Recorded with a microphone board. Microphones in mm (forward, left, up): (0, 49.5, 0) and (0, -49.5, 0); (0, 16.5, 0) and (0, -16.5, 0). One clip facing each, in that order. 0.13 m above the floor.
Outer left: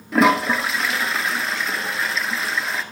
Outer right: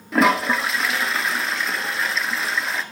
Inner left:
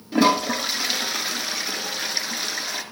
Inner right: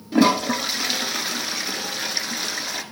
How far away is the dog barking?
I don't hear a dog barking.